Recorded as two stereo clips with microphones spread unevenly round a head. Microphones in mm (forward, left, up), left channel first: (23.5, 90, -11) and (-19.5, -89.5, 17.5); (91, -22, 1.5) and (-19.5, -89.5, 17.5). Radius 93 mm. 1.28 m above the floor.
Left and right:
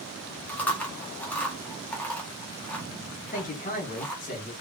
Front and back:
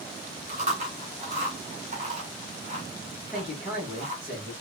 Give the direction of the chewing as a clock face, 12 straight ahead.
7 o'clock.